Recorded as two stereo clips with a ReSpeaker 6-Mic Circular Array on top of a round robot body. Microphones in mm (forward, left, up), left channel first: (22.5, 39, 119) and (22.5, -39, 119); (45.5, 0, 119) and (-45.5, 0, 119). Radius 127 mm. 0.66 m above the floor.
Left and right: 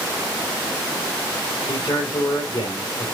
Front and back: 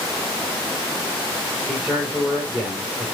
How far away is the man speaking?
About 3.5 m.